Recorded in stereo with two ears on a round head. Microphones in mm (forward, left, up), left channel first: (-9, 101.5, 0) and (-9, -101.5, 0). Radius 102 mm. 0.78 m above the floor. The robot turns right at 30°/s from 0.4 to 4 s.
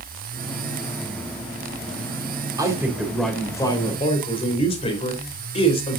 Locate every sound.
2.6 s a man speaking: 15° right, 3.5 m; by 6.0 s 25° left, 3.5 m